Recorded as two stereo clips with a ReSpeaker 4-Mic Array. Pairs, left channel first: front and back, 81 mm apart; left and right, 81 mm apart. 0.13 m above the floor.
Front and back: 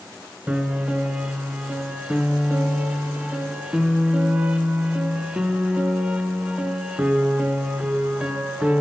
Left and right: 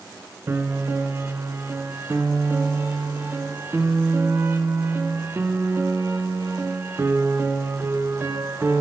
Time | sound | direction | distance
0.5 | a piano | 115° right | 0.7 m